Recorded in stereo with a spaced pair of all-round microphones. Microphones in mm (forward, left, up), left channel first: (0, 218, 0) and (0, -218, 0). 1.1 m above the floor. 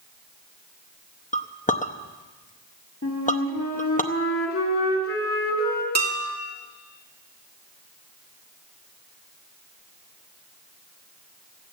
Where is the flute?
30° left (ahead or behind), 3 m.